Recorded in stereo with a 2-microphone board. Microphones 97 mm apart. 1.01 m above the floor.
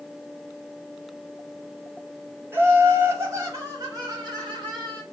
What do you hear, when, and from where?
2.5 s laughter: 25° right (ahead or behind), 2.5 m; by 5.0 s 55° right (ahead or behind), 2.5 m